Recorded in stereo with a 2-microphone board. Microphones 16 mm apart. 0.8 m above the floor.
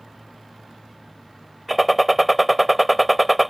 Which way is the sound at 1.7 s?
5° right (ahead or behind).